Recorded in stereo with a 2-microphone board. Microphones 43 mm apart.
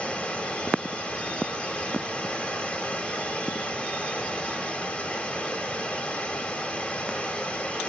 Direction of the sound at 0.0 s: 25° left (ahead or behind).